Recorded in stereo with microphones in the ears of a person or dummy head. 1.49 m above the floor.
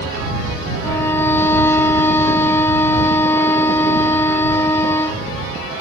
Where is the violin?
15° left (ahead or behind).